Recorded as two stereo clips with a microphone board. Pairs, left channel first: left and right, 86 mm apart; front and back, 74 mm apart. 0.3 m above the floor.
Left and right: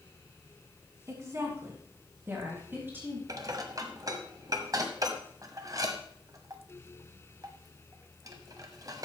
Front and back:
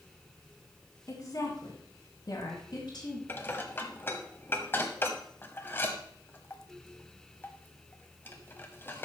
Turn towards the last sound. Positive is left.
turn(degrees=-55)